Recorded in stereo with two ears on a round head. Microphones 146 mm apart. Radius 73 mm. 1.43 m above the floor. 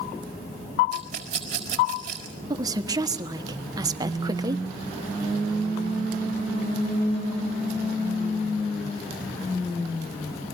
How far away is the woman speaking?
About 1.3 m.